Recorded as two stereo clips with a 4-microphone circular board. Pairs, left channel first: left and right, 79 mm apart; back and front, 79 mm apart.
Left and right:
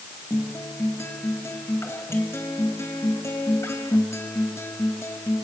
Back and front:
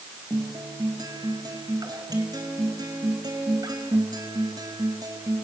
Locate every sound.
0.3 s a guitar: 35° left, 4.5 m